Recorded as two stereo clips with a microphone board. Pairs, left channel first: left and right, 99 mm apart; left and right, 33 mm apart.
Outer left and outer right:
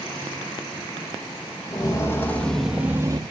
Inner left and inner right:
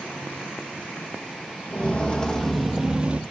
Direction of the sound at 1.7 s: 35° left (ahead or behind).